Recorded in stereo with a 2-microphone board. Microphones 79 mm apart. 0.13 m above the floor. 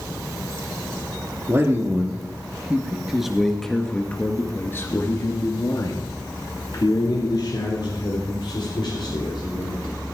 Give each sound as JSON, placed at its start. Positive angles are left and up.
{"t": 1.5, "sound": "a man speaking", "side_deg": -35, "distance_m": 2.5}